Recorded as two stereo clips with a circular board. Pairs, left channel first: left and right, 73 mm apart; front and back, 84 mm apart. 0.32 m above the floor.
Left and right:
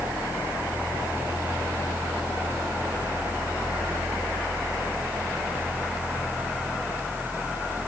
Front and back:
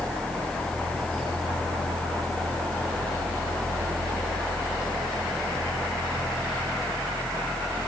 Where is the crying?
No crying in this recording.